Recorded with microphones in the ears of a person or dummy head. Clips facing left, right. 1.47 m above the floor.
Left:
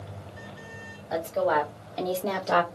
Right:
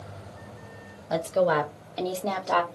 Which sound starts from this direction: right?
A woman speaking, at 1.1 s.